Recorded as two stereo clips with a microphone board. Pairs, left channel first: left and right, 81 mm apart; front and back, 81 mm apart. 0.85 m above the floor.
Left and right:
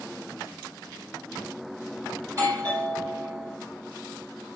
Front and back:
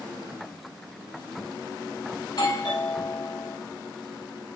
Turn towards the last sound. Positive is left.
turn(degrees=-35)